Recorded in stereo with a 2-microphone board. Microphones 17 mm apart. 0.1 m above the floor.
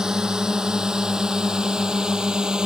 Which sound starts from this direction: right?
A drone, at 0.0 s.